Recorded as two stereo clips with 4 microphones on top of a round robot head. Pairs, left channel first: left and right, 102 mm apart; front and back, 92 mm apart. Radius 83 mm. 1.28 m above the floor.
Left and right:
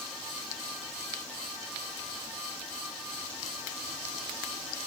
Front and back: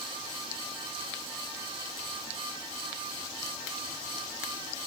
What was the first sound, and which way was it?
Only background noise.